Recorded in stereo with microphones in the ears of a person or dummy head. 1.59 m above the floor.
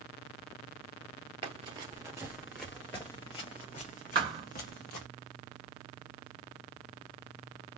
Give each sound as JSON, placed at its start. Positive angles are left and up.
{"t": 1.4, "sound": "running footsteps", "side_deg": -25, "distance_m": 1.7}
{"t": 4.2, "sound": "a thud", "side_deg": -25, "distance_m": 1.0}